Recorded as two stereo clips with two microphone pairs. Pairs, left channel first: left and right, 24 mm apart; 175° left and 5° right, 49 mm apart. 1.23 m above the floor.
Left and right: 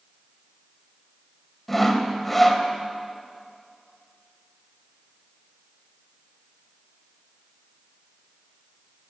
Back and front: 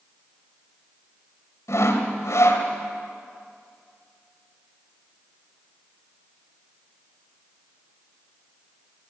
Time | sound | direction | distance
1.7 | sawing | 170° left | 2 m